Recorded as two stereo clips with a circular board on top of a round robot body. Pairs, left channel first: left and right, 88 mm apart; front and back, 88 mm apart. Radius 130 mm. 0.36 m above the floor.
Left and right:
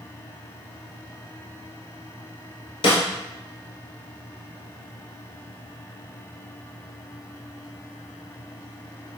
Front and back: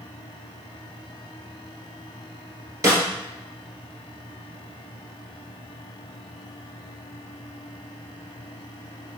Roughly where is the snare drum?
Behind left.